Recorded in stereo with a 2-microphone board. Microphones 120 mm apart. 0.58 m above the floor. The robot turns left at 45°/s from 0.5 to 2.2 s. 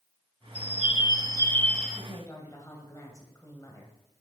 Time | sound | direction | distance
0.6 | a bird | 65° left | 0.9 m
2.0 | a woman speaking | 15° left (ahead or behind) | 2.5 m